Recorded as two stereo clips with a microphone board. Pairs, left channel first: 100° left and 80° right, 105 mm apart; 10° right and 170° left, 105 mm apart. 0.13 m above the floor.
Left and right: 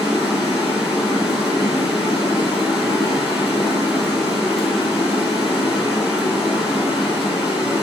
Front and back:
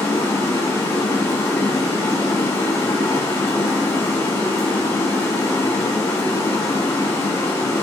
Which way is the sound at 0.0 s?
5° left.